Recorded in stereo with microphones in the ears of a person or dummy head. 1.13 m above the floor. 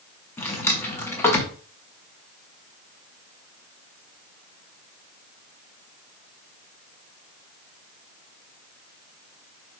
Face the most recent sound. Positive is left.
turn(degrees=15)  # may be behind; listen again after turning